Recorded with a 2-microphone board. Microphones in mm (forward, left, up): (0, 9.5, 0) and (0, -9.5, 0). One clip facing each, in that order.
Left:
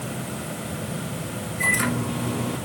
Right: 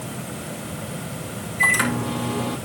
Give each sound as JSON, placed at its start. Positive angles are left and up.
{"t": 1.6, "sound": "a microwave", "side_deg": -45, "distance_m": 3.5}